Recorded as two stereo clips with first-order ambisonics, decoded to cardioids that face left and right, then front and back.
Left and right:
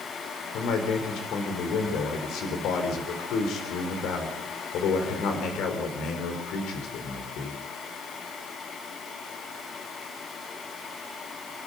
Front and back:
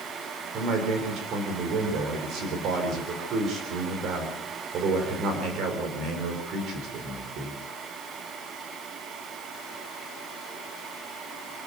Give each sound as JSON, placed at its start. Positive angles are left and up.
{"t": 0.5, "sound": "a man speaking", "azimuth_deg": 135, "distance_m": 4.0}